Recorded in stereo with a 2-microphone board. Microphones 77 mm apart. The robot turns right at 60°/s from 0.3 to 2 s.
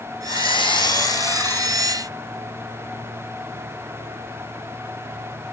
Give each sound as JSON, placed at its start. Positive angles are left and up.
{"t": 0.3, "sound": "sawing", "azimuth_deg": 80, "distance_m": 1.4}